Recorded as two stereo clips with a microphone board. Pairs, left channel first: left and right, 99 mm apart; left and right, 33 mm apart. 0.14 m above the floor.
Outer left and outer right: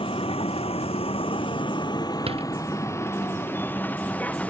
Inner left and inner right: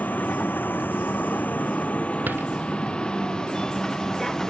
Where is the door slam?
85° right.